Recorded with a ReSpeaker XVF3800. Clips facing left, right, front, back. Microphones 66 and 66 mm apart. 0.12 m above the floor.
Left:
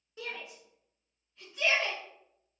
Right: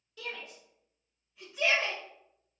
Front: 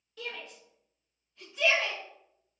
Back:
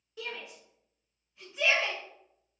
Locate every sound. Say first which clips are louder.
0.2 s a shout: even, back 1 dB; 120° left, 1.7 m; by 2.0 s 115° right, 1.7 m